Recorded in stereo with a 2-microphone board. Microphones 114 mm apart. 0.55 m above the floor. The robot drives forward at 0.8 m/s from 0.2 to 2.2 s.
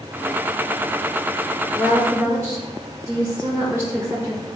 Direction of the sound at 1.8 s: 25° right (ahead or behind).